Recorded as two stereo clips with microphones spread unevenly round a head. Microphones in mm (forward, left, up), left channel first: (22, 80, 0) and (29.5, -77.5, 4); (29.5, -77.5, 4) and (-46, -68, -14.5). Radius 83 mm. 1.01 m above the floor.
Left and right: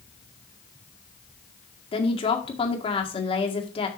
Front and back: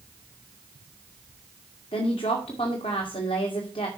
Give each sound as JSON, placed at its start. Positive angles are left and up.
{"t": 1.9, "sound": "a woman speaking", "azimuth_deg": 35, "distance_m": 2.0}